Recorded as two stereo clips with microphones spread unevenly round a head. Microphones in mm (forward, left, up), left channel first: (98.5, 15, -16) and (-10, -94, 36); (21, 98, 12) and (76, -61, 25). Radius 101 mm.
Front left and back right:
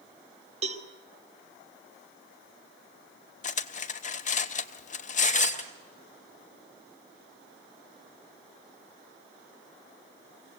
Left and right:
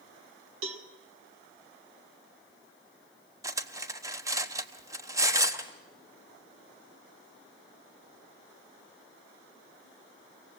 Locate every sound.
0.6 s a cowbell: 85° right, 1.8 m
3.4 s cutlery clinking: straight ahead, 1.1 m